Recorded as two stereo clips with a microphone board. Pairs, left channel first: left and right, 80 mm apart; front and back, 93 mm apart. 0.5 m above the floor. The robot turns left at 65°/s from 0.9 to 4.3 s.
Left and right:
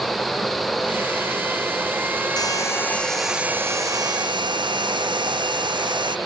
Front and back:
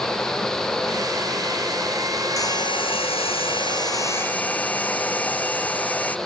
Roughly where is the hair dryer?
Ahead left.